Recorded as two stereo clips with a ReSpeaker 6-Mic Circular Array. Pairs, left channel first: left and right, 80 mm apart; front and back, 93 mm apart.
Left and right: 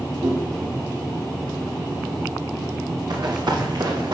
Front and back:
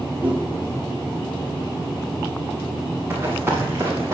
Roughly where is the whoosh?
Right.